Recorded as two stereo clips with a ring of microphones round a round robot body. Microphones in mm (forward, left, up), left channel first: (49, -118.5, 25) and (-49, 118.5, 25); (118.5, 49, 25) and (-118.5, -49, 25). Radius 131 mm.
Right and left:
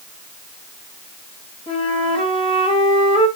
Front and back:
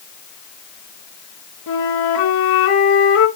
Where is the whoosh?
I don't hear a whoosh.